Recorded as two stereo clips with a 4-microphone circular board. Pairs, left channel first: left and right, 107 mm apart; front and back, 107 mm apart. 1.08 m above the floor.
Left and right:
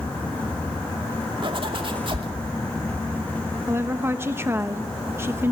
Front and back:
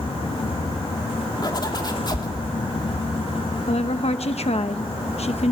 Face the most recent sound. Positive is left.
turn(degrees=-20)